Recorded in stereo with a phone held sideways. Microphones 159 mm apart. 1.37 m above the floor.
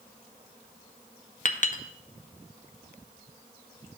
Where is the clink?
50° left (ahead or behind), 0.6 m.